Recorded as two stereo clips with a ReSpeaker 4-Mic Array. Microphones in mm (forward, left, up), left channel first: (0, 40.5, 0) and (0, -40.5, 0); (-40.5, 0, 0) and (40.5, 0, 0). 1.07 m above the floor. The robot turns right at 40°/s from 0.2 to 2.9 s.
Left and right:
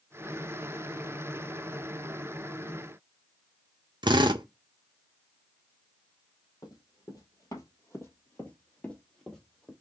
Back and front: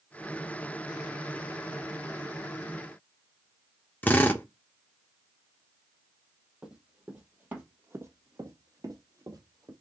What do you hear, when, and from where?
4.0 s a drill: 110° right, 0.8 m
6.6 s running footsteps: 80° left, 1.9 m; by 9.7 s straight ahead, 1.7 m